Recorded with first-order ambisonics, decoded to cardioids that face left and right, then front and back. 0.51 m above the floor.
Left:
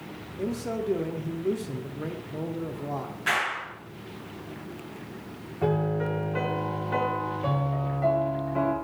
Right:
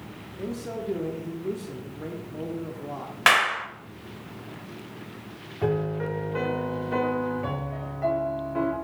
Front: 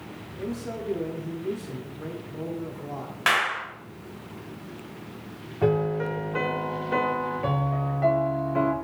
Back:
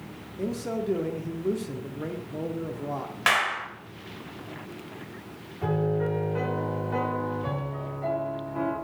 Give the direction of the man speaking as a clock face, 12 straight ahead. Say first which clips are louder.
Left 3 dB, back 3 dB; 7 o'clock.